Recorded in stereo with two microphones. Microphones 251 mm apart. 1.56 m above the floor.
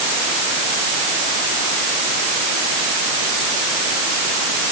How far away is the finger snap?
No finger snap in this recording.